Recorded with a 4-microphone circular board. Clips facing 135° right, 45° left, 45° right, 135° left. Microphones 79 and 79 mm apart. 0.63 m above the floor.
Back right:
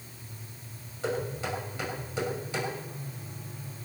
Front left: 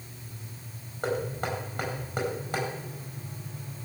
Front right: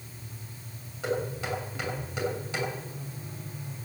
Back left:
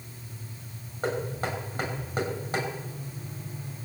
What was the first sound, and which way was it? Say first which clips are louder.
Knocking: front left 2 dB, back left 1 dB; 90° left.